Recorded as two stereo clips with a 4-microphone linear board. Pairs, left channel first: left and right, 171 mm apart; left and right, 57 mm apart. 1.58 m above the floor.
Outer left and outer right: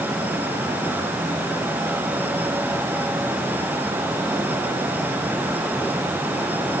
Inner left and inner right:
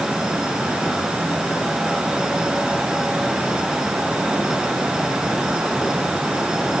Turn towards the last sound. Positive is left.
No sound to turn to.